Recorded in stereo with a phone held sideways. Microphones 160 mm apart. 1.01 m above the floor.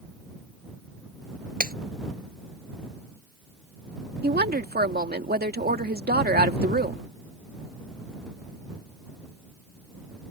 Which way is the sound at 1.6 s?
65° right (ahead or behind).